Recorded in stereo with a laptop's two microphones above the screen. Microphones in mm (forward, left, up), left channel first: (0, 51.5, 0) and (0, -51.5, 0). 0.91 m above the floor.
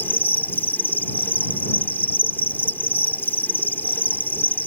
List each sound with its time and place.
0.0 s an insect: 20° left (ahead or behind)